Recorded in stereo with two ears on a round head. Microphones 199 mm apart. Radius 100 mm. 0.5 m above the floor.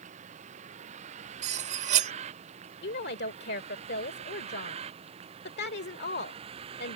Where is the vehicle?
30° right (ahead or behind); by 7.0 s 25° right (ahead or behind).